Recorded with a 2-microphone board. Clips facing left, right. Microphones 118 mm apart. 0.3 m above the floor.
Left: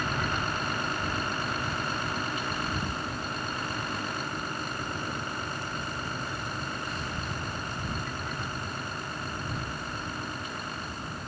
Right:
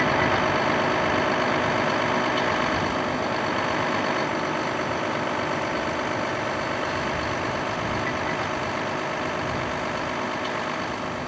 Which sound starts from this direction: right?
A vehicle, at 0.0 s.